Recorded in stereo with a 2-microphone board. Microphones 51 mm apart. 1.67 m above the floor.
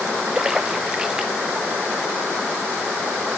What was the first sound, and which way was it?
A splash, 15° right (ahead or behind).